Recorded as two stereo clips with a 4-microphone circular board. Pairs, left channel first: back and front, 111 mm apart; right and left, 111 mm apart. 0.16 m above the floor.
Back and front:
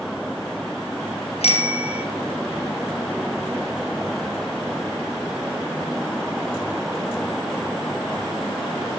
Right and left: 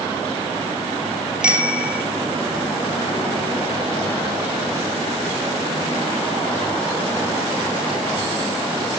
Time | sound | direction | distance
1.4 | a bicycle bell | 170° left | 2.5 m